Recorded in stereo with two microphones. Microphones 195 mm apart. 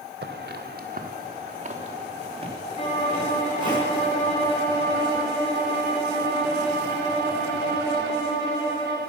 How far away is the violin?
About 4.5 m.